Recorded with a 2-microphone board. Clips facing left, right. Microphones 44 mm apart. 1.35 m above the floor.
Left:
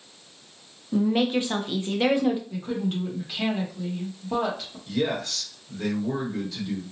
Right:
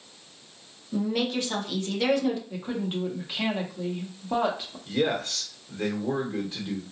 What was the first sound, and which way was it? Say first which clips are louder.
A woman speaking: left 4 dB; 20° left (ahead or behind).